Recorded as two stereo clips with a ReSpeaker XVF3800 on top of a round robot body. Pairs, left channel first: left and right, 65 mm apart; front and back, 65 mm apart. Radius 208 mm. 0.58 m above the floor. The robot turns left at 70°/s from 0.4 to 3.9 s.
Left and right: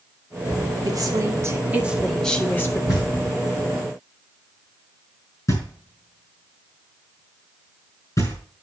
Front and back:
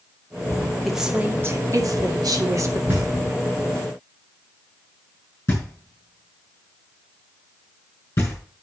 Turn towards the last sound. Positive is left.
turn(degrees=55)